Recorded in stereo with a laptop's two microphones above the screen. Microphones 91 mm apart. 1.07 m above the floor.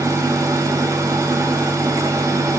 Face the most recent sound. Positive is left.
turn(degrees=-35)  # may be behind; listen again after turning